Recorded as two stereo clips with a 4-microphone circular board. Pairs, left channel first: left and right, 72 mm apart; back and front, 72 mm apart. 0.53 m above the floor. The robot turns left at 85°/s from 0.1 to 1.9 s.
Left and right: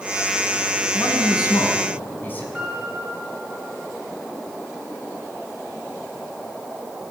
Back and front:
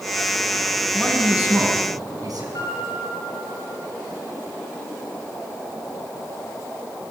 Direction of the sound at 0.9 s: 110° left.